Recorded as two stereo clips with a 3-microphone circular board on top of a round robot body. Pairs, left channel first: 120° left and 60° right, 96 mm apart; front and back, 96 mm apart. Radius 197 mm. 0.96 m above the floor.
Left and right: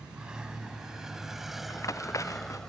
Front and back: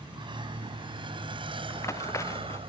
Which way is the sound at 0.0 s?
140° right.